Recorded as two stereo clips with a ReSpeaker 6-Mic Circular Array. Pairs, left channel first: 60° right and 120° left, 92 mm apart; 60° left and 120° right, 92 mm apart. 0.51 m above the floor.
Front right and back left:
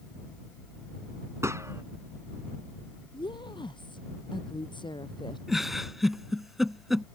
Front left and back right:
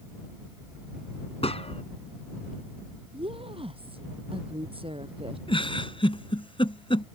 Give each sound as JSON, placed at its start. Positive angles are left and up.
{"t": 1.4, "sound": "a gunshot", "azimuth_deg": 60}
{"t": 3.1, "sound": "a woman speaking", "azimuth_deg": -95}
{"t": 5.5, "sound": "a giggle", "azimuth_deg": 35}